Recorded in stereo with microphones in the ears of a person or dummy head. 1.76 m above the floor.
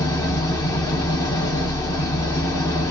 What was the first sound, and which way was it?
An engine running, 20° left (ahead or behind).